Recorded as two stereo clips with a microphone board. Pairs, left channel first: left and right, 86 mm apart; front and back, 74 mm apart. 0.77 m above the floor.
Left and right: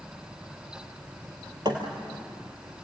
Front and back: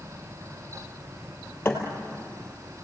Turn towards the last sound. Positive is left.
turn(degrees=-65)